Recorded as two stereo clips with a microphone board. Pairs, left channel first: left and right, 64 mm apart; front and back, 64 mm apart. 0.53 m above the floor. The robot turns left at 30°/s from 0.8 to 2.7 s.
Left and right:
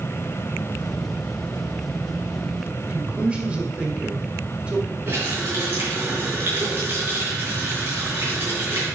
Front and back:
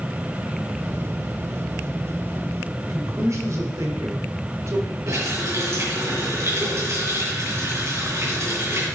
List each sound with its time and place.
2.8 s a man speaking: 160° right, 1.9 m
5.1 s a running tap: 145° right, 5 m